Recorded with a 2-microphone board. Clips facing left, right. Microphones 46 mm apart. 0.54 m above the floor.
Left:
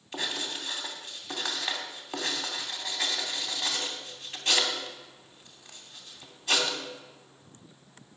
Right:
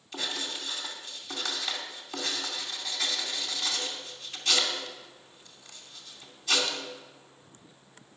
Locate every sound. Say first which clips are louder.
0.1 s writing: left 1 dB; 25° left (ahead or behind), 2.5 m